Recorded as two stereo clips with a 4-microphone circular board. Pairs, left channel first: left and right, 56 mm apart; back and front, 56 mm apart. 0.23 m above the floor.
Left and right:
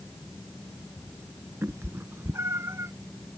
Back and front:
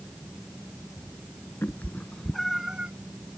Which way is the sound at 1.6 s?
130° right.